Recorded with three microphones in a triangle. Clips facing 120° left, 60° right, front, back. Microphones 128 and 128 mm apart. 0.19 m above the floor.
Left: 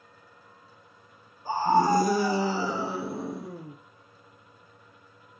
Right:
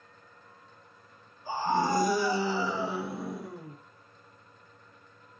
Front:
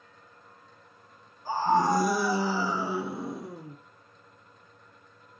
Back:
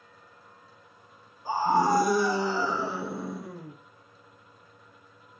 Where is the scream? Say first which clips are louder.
Left 5 dB, back 1 dB; 110° left, 1.5 m; by 3.8 s 65° left, 3 m.